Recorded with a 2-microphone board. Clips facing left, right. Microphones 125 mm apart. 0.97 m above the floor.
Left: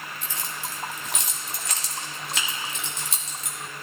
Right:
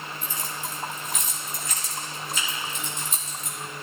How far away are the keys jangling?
About 1.4 m.